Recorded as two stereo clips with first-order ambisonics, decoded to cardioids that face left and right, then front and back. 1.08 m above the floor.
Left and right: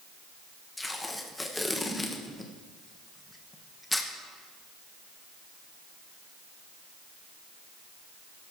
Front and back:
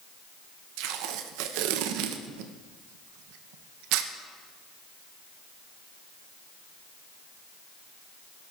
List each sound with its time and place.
0.8 s tape being pulled: 175° left, 0.5 m